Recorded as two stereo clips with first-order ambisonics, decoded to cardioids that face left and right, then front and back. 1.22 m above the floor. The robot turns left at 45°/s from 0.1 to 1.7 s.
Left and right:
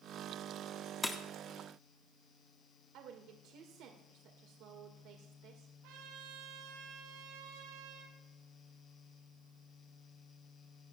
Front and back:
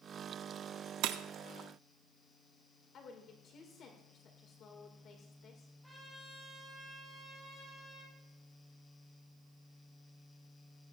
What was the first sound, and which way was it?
Breaking glass, 170° left.